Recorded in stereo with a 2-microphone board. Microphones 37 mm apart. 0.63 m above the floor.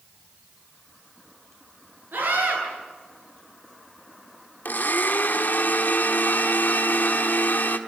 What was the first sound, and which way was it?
A scream, 70° right (ahead or behind).